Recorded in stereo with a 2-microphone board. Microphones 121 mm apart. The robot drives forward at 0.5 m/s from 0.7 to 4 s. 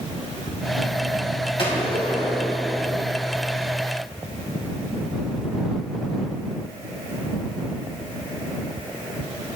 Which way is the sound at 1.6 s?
45° left (ahead or behind).